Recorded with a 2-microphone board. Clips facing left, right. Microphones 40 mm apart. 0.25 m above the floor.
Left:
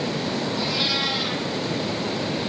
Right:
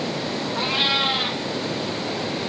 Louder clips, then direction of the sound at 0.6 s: Right 6 dB; 35° right (ahead or behind).